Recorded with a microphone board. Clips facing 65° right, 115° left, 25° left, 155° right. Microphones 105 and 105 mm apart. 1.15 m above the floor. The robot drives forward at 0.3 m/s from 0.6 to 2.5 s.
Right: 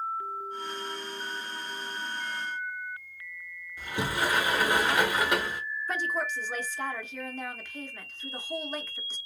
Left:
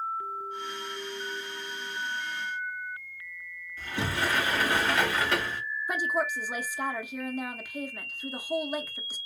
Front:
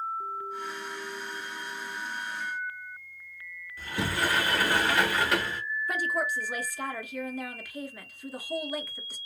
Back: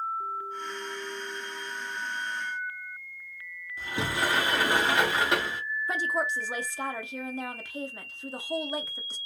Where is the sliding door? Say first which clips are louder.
Right 1 dB, even; 125° right, 0.8 m.